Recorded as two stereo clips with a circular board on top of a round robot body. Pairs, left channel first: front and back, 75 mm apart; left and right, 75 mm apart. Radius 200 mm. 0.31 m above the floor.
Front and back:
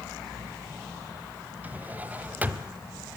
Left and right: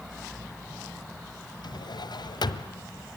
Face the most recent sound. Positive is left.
turn(degrees=110)